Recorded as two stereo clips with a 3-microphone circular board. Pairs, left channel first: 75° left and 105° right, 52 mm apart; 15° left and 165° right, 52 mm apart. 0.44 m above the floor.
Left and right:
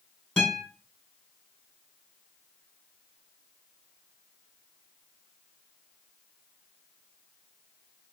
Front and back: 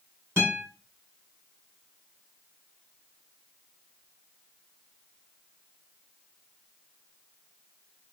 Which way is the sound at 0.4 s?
155° left.